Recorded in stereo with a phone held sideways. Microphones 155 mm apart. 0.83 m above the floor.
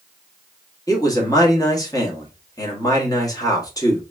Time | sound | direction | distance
0.9 | a man speaking | 25° left (ahead or behind) | 1.5 m